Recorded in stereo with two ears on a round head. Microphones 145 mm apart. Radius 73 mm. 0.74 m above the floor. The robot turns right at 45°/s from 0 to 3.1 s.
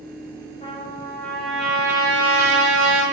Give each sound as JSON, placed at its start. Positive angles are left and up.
{"t": 0.6, "sound": "a trumpet", "azimuth_deg": 140, "distance_m": 2.5}